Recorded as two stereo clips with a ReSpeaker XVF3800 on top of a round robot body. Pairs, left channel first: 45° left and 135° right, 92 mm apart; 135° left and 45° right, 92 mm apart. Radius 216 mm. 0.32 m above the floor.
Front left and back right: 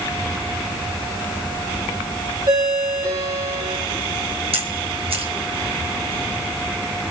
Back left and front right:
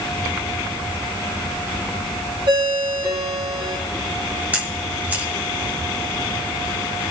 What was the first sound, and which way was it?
A ringtone, 80° right.